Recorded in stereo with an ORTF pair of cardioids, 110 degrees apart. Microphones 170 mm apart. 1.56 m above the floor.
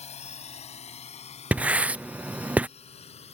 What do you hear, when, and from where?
0.0 s a drone: 40° left; by 3.3 s 35° left
1.5 s writing: 10° right